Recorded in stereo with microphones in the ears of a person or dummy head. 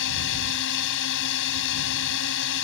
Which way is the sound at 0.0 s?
65° left (ahead or behind).